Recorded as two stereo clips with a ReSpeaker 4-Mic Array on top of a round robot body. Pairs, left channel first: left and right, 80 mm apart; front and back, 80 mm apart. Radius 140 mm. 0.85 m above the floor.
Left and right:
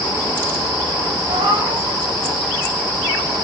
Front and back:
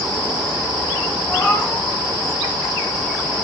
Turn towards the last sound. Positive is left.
turn(degrees=-75)